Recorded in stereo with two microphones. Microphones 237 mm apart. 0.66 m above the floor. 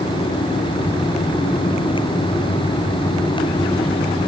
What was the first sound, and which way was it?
Only background noise.